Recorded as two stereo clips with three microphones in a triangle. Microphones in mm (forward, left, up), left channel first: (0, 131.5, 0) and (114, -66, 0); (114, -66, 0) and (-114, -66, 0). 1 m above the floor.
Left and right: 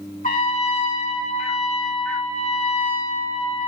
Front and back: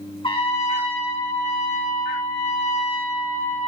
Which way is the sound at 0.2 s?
65° left.